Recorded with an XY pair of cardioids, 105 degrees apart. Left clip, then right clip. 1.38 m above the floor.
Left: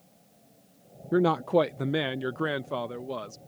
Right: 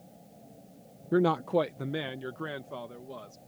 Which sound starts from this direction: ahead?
A man speaking, at 1.1 s.